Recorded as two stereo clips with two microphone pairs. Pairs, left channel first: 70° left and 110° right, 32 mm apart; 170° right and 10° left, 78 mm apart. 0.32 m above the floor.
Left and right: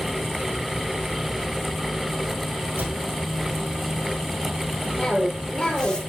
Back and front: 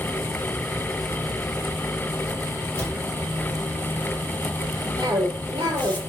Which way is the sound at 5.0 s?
5° left.